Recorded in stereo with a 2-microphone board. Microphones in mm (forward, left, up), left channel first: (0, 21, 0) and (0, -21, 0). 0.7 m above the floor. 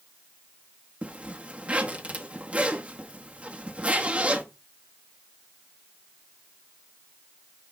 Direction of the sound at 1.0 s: 30° right (ahead or behind).